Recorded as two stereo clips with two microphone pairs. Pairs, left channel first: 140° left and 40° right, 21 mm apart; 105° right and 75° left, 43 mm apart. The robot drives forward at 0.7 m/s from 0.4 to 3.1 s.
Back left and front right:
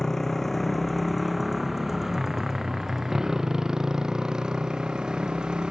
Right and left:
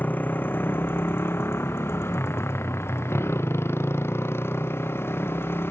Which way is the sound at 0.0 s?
150° right.